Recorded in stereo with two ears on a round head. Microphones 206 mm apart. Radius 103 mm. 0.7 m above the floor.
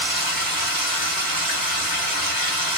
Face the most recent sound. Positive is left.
turn(degrees=-40)  # may be behind; listen again after turning